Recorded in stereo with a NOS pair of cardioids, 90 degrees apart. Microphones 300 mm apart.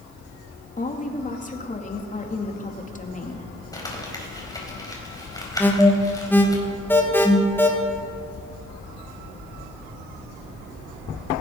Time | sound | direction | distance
0.8 | a woman speaking | 25° left | 2.5 m
3.7 | crumpling | 15° left | 4.5 m
5.6 | an alarm | 5° left | 3 m